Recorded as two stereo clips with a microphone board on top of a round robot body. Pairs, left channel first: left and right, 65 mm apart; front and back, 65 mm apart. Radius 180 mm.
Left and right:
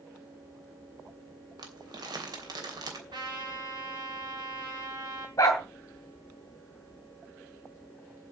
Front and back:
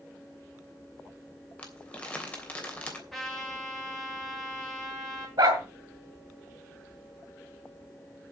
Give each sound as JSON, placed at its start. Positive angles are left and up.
{"t": 1.6, "sound": "crumpling", "azimuth_deg": -70, "distance_m": 3.0}
{"t": 3.1, "sound": "a trumpet", "azimuth_deg": -90, "distance_m": 5.5}
{"t": 5.4, "sound": "a dog barking", "azimuth_deg": 145, "distance_m": 1.2}